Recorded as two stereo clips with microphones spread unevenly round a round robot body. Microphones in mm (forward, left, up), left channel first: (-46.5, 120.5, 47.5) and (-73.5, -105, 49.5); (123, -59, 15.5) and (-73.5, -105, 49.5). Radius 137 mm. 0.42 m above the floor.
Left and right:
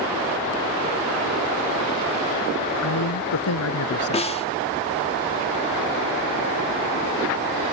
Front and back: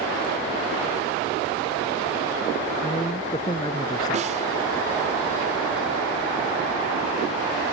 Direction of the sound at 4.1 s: 135° left.